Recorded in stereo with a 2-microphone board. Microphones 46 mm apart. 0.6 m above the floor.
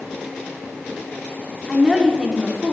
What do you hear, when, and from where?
1.7 s a woman speaking: 10° right (ahead or behind), 1.1 m